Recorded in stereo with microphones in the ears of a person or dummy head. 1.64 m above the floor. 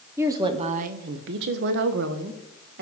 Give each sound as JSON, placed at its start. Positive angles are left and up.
{"t": 0.2, "sound": "a woman speaking", "side_deg": -10, "distance_m": 0.7}